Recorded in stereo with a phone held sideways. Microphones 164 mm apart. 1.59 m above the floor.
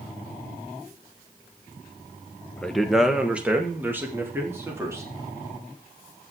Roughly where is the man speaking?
Centre.